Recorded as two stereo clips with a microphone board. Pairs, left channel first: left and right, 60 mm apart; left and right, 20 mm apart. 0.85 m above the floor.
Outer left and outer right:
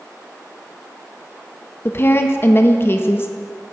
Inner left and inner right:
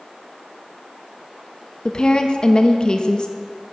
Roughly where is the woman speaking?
Left.